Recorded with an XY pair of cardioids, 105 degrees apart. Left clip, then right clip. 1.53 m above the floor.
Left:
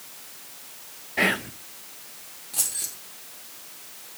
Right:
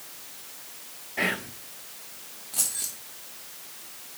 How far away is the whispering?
About 0.8 m.